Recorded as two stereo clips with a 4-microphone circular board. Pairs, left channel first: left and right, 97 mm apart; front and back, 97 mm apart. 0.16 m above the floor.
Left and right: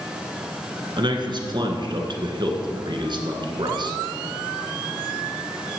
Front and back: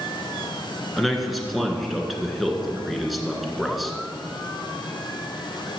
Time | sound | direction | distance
1.0 | a man speaking | 90° right | 1.7 m